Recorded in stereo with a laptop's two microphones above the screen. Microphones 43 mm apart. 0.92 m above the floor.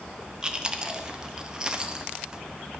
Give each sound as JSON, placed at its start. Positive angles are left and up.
{"t": 0.4, "sound": "chewing", "side_deg": -15, "distance_m": 1.1}